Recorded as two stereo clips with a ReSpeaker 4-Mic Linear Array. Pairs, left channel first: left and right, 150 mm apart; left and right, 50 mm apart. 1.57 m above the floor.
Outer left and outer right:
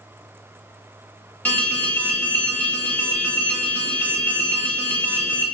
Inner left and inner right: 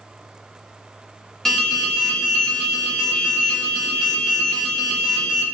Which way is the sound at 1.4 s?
10° left (ahead or behind).